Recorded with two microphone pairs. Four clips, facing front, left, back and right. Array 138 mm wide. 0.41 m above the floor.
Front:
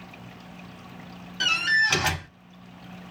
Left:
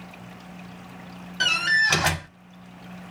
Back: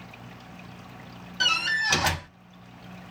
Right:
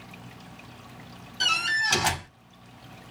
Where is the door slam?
95° left, 1.5 m.